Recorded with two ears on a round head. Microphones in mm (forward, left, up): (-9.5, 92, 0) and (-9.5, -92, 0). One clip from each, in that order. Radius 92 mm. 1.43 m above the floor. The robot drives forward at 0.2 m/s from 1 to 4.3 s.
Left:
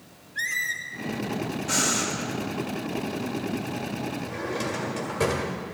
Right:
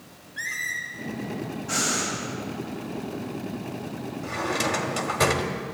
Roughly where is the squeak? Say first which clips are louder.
Left 2 dB; left.